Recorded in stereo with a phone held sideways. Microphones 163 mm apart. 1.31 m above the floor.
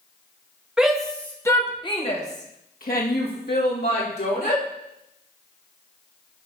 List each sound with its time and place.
0.8 s a shout: 5° right (ahead or behind), 2.5 m; by 4.6 s 85° left, 4 m